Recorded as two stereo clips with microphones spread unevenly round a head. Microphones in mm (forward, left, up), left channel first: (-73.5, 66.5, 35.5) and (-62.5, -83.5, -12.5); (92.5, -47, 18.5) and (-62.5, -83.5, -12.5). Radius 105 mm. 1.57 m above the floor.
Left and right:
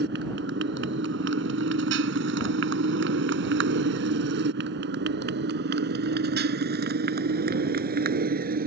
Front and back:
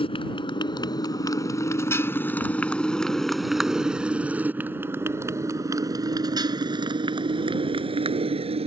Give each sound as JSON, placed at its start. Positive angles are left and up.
{"t": 0.0, "sound": "a motorcycle", "azimuth_deg": -40}